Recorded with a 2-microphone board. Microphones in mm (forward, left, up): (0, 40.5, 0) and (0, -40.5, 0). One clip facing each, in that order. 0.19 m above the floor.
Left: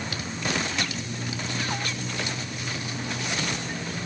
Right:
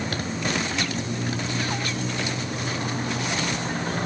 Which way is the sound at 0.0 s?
45° right (ahead or behind).